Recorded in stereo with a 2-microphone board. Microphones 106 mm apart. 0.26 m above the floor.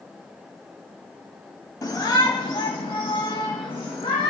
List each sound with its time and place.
1.8 s a shout: 40° left (ahead or behind), 1.1 m; by 4.3 s 55° left (ahead or behind), 2.5 m